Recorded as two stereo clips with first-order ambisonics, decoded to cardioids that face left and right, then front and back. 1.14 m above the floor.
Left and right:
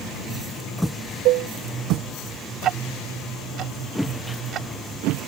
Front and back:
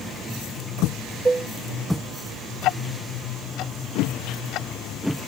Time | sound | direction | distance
1.2 | dishes clattering | 105° right | ?
2.6 | ticking | 40° right | ?